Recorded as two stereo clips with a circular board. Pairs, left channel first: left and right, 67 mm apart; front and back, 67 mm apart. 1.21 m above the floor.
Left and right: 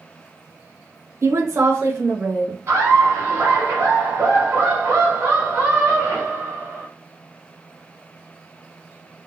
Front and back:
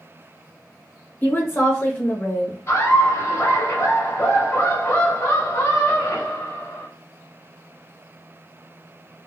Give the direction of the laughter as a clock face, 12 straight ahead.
1 o'clock.